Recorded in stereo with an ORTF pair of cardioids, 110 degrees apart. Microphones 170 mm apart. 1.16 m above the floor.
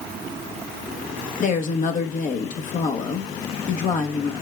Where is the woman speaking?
50° left, 1.3 m.